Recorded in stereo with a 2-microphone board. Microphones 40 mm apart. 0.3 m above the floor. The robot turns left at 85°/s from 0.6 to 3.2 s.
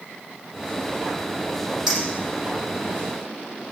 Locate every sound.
1.9 s a clink: 5° right (ahead or behind), 6.5 m; by 3.0 s 85° left, 6.5 m